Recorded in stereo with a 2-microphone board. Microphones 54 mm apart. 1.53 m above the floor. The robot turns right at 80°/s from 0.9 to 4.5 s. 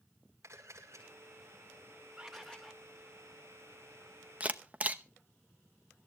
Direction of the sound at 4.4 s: 25° right (ahead or behind).